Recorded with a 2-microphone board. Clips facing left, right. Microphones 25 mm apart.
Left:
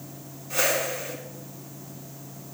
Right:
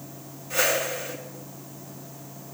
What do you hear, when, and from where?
0.5 s a whoosh: 5° left (ahead or behind), 3.5 m